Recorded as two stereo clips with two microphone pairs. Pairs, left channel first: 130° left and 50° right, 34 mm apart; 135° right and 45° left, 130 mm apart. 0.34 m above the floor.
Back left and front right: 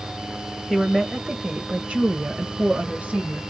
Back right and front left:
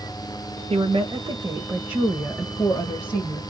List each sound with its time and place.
0.7 s a woman speaking: 40° left, 1.5 m; by 3.4 s 80° right, 1.6 m